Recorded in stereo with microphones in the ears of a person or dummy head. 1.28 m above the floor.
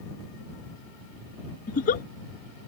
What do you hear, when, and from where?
1.7 s a giggle: 40° left (ahead or behind)